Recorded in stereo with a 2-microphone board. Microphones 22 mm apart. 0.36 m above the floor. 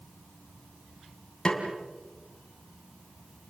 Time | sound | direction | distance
1.4 | a snare drum | 35° left (ahead or behind) | 3.5 m